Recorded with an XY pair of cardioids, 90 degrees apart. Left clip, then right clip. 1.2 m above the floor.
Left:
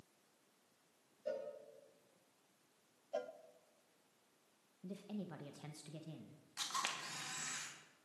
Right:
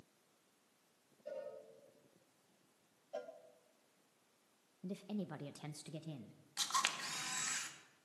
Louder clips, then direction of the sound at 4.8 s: Right 3 dB; 35° right.